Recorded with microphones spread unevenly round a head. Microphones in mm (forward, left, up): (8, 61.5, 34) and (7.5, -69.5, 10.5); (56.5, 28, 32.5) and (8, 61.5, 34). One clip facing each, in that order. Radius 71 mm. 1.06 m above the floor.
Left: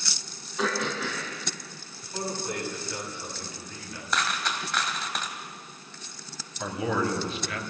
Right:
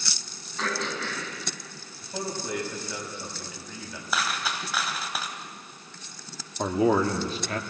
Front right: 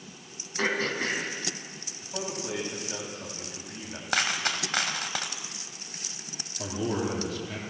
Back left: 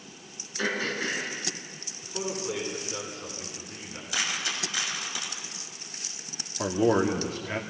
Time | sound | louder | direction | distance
0.6 | throat clearing | left 2 dB, front right 1 dB | 10° left | 6 m
2.0 | a man speaking | even, back left 2 dB | 80° right | 8.5 m
4.1 | a dropped coin | even, front right 4 dB | straight ahead | 2 m
6.6 | a man speaking | right 6 dB, back left 7 dB | 145° right | 2 m